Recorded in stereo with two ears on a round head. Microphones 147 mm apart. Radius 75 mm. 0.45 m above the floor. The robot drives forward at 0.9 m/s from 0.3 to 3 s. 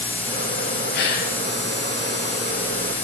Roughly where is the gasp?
Left.